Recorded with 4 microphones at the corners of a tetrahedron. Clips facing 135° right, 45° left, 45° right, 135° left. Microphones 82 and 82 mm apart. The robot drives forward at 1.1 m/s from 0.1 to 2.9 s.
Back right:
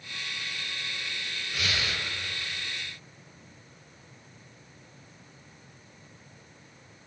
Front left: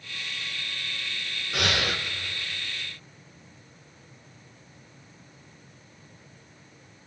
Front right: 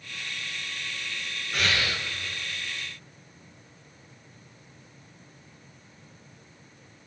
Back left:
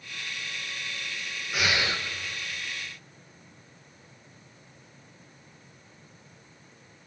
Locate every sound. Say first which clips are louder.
1.5 s breathing: front left 5 dB, even; 50° left, 1.3 m; by 2.0 s 80° left, 1.1 m